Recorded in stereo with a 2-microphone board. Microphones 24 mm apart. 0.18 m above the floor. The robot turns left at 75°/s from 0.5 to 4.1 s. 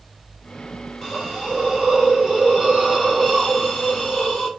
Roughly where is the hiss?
Ahead.